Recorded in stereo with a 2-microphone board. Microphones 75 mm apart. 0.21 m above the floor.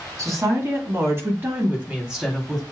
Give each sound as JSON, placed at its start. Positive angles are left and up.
{"t": 0.2, "sound": "a woman speaking", "side_deg": -50, "distance_m": 1.7}